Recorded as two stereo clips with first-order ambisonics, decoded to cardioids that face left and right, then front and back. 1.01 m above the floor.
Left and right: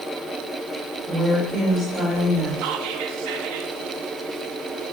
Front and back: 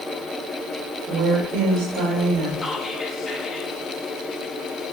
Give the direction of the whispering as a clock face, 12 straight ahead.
3 o'clock.